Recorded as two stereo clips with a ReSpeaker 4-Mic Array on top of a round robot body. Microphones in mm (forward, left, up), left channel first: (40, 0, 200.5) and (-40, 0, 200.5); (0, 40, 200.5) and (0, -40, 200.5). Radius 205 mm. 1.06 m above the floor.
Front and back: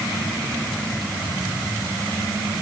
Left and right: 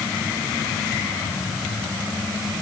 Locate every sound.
Only background noise.